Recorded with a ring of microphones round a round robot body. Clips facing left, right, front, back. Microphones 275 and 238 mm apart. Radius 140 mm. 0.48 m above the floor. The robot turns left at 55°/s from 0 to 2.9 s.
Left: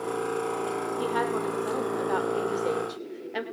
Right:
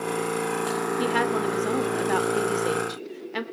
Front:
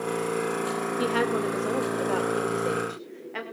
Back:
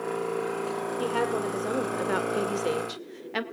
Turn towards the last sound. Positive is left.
turn(degrees=-160)